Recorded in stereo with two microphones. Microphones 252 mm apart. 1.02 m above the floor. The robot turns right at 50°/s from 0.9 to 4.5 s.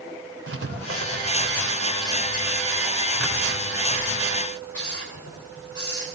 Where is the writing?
65° right (ahead or behind), 3.5 m; by 6.2 s 65° left (ahead or behind), 3.5 m.